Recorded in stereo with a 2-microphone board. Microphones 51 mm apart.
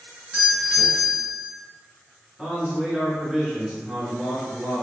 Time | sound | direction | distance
0.3 | a doorbell | 20° right (ahead or behind) | 1.7 m
2.4 | a man speaking | 5° right (ahead or behind) | 1.2 m